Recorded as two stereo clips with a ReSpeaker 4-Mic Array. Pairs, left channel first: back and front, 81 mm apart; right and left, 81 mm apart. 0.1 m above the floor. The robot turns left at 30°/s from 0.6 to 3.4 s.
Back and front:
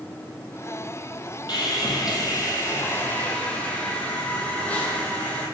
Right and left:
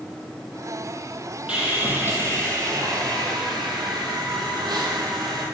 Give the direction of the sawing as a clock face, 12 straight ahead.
6 o'clock.